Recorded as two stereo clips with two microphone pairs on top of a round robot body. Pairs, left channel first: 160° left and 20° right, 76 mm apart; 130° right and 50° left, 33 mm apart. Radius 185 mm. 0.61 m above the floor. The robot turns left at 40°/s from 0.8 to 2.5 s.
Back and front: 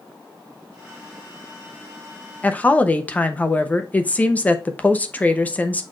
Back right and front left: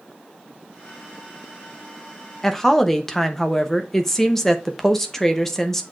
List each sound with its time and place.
2.4 s a woman speaking: 175° right, 1.1 m